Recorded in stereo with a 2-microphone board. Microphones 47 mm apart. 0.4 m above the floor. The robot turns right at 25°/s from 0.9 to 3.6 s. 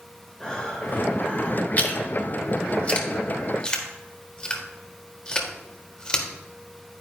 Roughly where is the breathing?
Left.